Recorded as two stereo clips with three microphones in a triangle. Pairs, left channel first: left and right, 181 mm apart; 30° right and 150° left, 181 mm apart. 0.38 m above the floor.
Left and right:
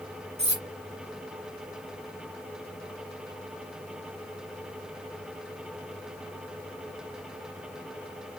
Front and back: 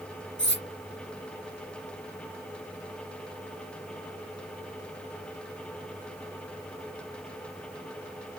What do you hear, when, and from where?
0.4 s cutlery clinking: 35° right, 3.5 m